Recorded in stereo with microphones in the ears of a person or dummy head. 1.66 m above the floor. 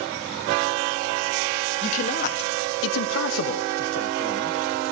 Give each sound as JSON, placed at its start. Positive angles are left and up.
{"t": 1.8, "sound": "a man speaking", "side_deg": 35, "distance_m": 1.4}